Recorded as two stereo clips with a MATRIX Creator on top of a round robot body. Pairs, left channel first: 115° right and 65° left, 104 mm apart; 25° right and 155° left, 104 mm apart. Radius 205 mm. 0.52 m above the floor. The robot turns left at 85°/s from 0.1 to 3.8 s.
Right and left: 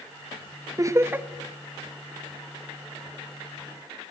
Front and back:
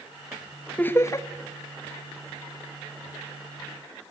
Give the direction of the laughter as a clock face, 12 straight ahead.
11 o'clock.